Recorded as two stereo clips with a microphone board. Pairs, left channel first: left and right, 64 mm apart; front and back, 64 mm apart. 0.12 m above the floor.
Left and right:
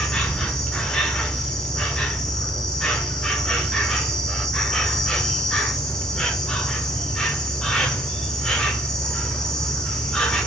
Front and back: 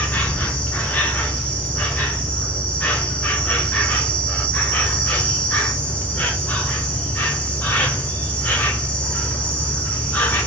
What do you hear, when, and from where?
0.0 s an insect: 30° left, 0.8 m